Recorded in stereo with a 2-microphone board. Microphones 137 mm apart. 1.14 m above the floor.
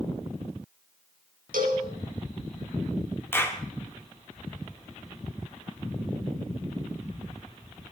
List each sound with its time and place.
1.5 s a cowbell: 85° right, 4 m
3.3 s a clap: 15° left (ahead or behind), 2 m